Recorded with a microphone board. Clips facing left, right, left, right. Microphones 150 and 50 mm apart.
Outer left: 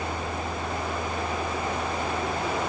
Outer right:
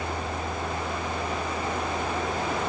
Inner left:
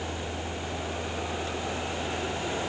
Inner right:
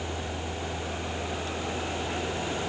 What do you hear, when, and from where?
Only background noise.